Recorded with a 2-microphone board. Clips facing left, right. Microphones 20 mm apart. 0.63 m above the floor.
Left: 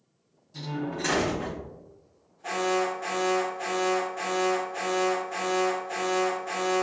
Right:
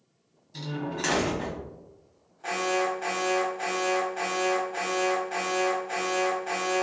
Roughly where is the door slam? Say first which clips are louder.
Even; right.